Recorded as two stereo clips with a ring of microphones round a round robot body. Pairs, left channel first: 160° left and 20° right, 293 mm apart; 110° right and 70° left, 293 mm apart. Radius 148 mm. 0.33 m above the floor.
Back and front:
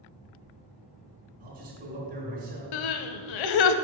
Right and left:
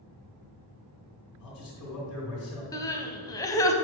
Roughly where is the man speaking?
Right.